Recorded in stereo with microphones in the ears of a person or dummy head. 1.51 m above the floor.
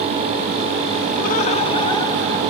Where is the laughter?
50° left (ahead or behind), 0.9 m; by 2.4 s 15° left (ahead or behind), 2 m.